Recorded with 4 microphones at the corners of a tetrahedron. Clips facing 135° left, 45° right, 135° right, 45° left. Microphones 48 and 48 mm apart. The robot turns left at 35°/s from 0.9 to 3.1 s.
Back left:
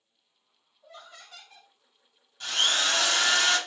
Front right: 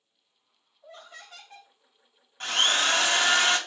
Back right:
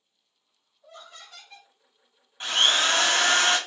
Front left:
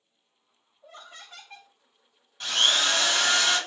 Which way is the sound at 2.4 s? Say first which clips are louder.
Front right 2 dB, back right 2 dB; 75° right.